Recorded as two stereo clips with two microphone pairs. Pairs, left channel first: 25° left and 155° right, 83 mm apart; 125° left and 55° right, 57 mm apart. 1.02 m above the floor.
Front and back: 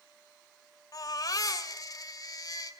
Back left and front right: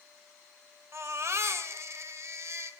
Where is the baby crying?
15° right, 2.5 m.